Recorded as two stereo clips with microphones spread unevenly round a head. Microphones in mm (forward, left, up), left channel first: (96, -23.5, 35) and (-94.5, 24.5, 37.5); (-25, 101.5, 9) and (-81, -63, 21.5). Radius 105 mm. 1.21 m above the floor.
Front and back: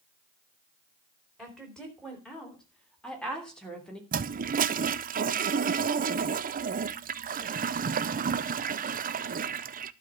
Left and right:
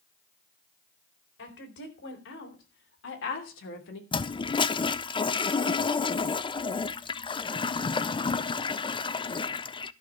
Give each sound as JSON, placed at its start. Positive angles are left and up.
{"t": 1.4, "sound": "a woman speaking", "azimuth_deg": 75, "distance_m": 4.0}
{"t": 4.1, "sound": "a toilet flushing", "azimuth_deg": 125, "distance_m": 0.6}